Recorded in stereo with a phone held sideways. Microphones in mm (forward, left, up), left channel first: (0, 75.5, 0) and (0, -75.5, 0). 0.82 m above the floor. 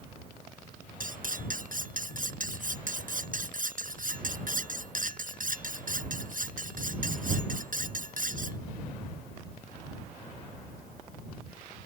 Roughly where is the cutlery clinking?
Right.